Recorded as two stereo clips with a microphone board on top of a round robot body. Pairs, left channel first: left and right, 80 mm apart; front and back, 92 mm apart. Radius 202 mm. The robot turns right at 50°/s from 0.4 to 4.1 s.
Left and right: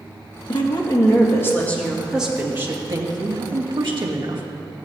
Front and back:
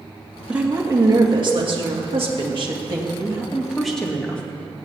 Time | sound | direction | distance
0.5 | a woman speaking | 100° left | 2 m